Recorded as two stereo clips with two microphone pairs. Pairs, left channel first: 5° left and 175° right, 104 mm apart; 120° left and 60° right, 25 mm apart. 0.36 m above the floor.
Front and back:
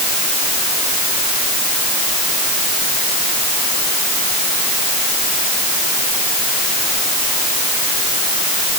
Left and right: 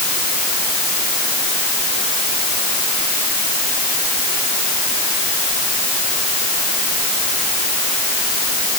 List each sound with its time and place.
Only background noise.